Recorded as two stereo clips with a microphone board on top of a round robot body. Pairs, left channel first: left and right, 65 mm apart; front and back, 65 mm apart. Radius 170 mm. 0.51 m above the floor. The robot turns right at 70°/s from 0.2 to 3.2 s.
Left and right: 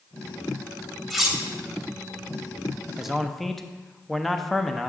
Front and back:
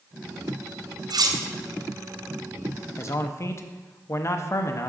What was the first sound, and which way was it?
Cutlery clinking, straight behind.